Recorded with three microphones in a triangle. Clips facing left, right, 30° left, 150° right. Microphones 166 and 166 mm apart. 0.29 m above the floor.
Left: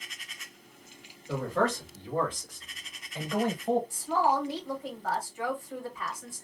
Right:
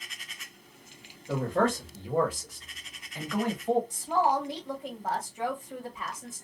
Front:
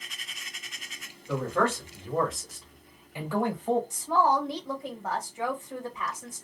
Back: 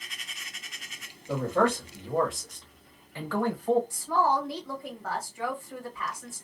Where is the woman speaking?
30° right, 1.2 m.